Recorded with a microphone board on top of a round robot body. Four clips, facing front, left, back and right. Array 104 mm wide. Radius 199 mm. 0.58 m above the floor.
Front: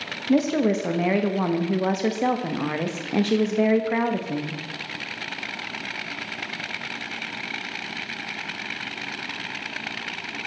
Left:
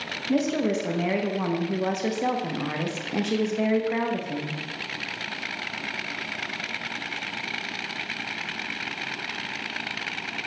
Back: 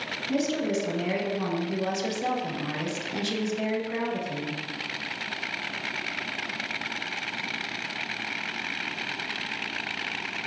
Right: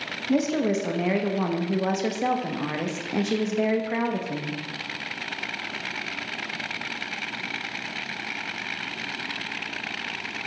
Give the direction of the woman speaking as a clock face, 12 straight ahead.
12 o'clock.